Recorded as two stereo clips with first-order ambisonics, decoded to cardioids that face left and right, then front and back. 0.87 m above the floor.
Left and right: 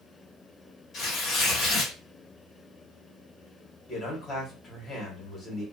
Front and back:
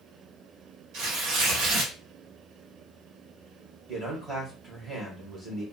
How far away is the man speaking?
About 1.0 m.